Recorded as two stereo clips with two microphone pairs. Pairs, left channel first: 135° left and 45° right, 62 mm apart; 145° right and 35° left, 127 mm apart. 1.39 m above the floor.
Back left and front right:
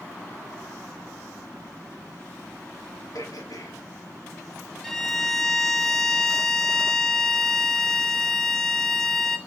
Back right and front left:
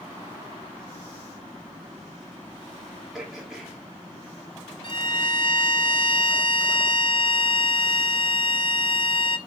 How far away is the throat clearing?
About 2.5 m.